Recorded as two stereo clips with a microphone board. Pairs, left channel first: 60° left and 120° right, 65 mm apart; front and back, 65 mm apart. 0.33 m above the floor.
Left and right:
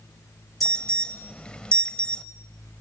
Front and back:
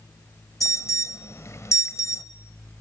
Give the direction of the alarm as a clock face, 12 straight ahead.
12 o'clock.